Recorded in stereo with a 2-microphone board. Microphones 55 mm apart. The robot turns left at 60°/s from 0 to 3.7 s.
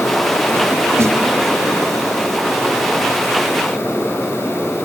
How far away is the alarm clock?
No alarm clock in this recording.